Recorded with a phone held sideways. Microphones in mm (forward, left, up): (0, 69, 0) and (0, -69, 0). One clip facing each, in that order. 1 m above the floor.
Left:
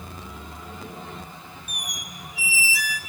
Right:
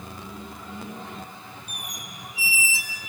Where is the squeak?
25° right (ahead or behind), 0.6 m.